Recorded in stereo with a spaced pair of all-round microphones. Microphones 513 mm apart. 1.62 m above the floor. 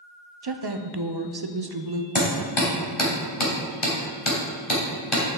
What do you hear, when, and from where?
0.4 s a woman speaking: 50° right (ahead or behind), 0.8 m
2.1 s hammering: 70° left (ahead or behind), 3 m